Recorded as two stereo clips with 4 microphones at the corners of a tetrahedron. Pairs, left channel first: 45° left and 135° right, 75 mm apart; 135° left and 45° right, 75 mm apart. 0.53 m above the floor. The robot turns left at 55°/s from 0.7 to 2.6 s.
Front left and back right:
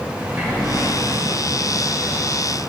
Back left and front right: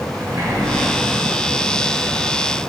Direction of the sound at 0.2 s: 70° right.